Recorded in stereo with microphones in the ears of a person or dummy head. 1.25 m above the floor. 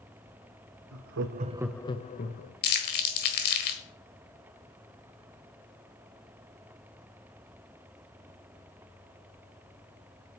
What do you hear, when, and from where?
0.9 s laughter: 75° right (ahead or behind), 0.9 m; by 2.5 s 45° left (ahead or behind), 1.4 m
2.6 s crumpling: 50° left (ahead or behind), 1.5 m